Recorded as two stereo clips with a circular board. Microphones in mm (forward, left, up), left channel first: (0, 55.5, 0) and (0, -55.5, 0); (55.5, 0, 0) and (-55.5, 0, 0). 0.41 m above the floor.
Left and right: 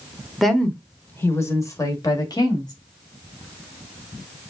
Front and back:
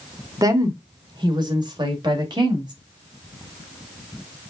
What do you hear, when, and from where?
0.4 s a woman speaking: straight behind, 1.0 m; by 2.7 s 135° left, 1.8 m